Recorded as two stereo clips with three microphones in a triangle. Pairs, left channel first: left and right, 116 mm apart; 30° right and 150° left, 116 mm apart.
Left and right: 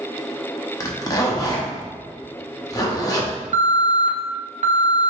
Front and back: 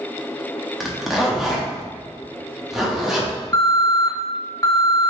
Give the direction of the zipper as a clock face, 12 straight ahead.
10 o'clock.